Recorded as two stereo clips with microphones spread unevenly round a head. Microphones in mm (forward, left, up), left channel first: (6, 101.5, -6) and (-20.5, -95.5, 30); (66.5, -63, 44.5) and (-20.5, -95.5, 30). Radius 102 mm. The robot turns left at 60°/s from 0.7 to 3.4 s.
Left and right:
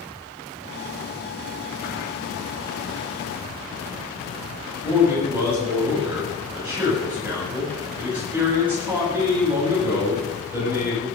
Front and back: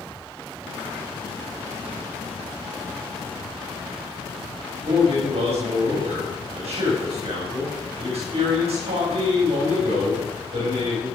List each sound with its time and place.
4.8 s a man speaking: straight behind, 8.5 m